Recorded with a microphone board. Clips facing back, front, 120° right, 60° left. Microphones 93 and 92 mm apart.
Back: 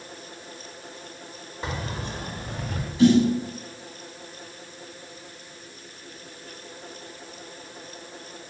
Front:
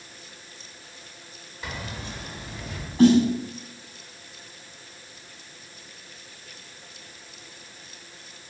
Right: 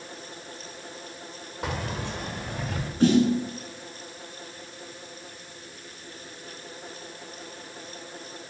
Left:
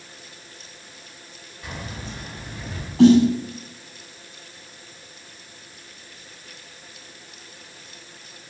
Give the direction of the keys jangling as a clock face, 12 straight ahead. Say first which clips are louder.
Back 4 dB, right 4 dB; 4 o'clock.